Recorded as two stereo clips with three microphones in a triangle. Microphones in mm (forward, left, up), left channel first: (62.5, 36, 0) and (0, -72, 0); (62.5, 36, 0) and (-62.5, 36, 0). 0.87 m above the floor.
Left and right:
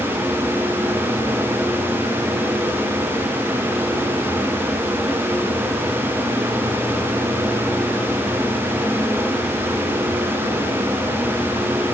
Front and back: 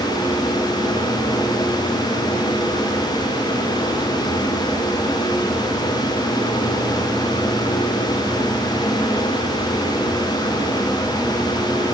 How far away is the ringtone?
No ringtone in this recording.